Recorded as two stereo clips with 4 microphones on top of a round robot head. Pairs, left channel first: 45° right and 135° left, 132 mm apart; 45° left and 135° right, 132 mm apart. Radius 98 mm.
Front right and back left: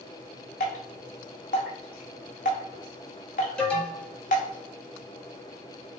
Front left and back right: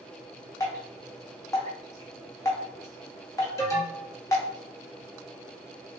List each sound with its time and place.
0.6 s dripping: 20° right, 0.6 m
3.6 s an alarm: 25° left, 1.4 m